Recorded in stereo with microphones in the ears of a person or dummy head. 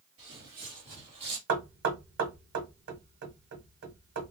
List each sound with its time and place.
0.2 s footsteps: 35° right (ahead or behind), 2 m
1.5 s knocking: 60° right (ahead or behind), 1.2 m